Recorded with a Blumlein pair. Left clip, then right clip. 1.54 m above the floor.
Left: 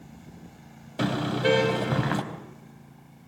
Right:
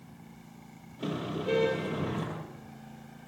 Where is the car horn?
45° left, 4 m.